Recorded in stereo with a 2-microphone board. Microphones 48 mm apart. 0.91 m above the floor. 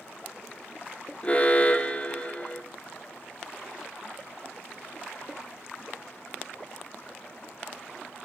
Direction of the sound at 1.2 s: 25° left (ahead or behind).